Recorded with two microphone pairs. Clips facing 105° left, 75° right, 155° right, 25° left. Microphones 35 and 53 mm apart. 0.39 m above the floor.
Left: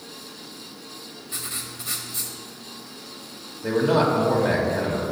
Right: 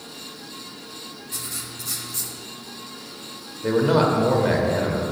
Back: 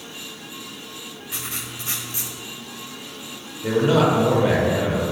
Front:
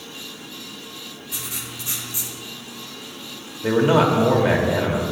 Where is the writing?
165° left, 0.8 m.